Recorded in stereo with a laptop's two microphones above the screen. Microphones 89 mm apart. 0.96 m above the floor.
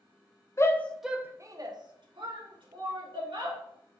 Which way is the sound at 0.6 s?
35° left (ahead or behind).